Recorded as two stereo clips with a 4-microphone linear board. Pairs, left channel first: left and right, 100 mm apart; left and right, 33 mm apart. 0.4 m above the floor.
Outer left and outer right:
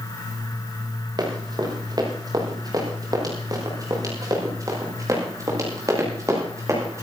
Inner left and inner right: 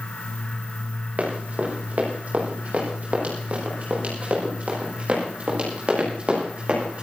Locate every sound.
1.2 s running footsteps: 45° right (ahead or behind), 7 m; by 7.0 s 30° right (ahead or behind), 10 m